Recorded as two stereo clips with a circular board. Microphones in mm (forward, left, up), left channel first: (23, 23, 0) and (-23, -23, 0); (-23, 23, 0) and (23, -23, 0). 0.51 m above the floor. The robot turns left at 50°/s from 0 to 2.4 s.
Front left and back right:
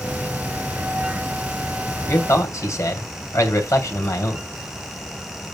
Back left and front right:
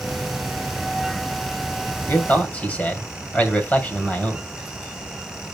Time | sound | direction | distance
2.1 | a man speaking | 90° left | 2.5 m